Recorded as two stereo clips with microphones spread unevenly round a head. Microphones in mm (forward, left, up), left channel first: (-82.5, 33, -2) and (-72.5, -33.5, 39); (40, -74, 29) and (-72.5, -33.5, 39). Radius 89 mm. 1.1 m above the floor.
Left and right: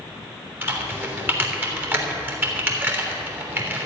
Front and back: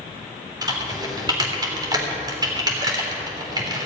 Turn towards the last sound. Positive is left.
turn(degrees=-145)